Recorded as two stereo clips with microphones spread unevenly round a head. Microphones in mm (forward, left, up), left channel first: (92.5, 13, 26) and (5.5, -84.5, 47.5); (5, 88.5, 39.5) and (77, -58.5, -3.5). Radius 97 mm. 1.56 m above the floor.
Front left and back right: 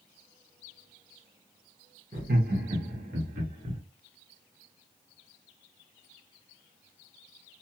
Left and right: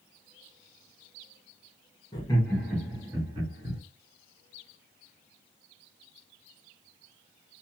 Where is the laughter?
Straight behind, 0.9 m; by 3.8 s 125° right, 1.4 m.